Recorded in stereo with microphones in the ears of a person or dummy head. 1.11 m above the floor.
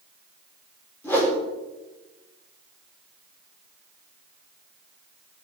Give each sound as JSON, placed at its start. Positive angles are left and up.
{"t": 1.0, "sound": "a whoosh", "side_deg": 15, "distance_m": 4.0}